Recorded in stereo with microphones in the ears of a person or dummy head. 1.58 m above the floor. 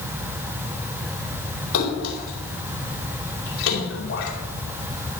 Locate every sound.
1.7 s a splash: 70° left (ahead or behind), 4 m